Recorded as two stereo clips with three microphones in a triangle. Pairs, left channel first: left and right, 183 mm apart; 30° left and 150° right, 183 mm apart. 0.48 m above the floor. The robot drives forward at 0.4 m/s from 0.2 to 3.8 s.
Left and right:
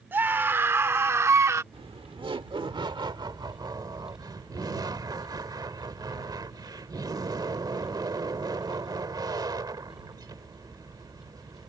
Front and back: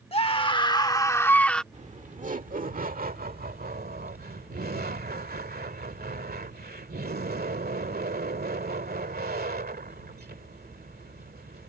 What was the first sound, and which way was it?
A scream, 15° right.